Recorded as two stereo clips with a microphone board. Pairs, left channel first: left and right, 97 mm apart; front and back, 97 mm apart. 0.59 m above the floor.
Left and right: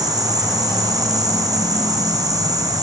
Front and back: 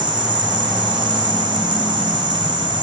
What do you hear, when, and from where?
0.0 s an insect: 135° right, 5.5 m